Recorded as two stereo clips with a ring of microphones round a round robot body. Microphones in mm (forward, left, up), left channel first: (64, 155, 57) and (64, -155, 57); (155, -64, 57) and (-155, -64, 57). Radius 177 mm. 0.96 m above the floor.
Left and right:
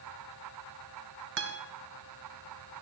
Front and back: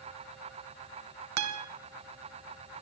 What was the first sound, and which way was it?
A guitar, 150° right.